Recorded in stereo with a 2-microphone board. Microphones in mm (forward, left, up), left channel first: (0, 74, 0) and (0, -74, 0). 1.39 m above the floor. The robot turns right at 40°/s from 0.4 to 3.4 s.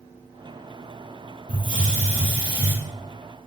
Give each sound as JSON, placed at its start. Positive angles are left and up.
{"t": 1.5, "sound": "a hiss", "azimuth_deg": -75, "distance_m": 3.5}